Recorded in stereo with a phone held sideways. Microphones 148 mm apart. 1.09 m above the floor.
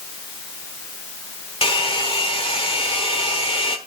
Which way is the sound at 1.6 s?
40° left (ahead or behind).